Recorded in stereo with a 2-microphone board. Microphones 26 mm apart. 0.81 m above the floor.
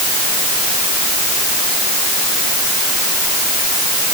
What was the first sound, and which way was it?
Only background noise.